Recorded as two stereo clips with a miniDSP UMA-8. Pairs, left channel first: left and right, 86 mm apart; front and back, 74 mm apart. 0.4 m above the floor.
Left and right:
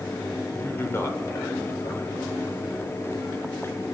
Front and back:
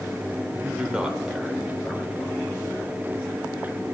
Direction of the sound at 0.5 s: 130° left.